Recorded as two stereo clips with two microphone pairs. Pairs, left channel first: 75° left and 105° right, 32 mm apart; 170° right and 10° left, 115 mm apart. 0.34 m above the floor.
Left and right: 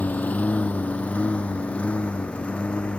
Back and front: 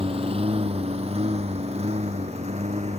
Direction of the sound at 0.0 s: 45° left.